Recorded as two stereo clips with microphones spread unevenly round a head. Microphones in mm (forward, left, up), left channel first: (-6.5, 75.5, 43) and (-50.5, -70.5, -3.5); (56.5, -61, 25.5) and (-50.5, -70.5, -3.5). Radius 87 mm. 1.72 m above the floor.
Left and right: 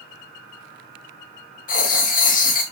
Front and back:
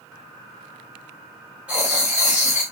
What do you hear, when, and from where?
1.7 s writing: 100° left, 1.5 m